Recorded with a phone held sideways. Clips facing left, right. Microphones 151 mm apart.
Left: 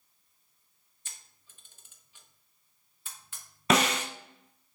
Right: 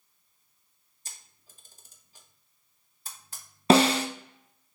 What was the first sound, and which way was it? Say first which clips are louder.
A camera shutter: right 2 dB; 35° right (ahead or behind).